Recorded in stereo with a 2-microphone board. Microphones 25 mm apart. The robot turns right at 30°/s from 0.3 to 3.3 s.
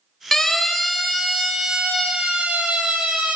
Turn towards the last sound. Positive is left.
turn(degrees=-80)